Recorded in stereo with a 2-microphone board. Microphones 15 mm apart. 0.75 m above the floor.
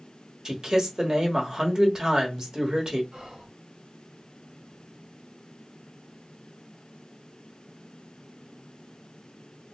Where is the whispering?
50° right (ahead or behind), 1.3 m.